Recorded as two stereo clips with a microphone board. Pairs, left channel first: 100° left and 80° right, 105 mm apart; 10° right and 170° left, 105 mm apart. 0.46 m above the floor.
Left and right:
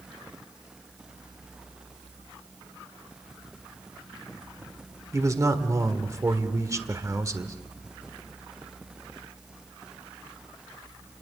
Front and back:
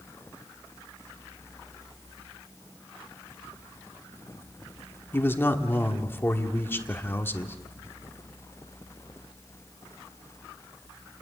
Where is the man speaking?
60° right, 1.5 m.